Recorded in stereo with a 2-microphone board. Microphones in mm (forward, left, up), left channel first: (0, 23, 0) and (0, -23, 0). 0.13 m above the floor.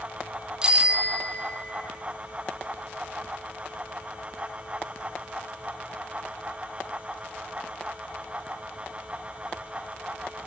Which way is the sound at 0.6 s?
20° right (ahead or behind).